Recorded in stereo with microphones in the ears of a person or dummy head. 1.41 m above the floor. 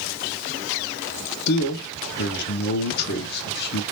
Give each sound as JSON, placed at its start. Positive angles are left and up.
{"t": 1.5, "sound": "a man speaking", "side_deg": 60, "distance_m": 1.1}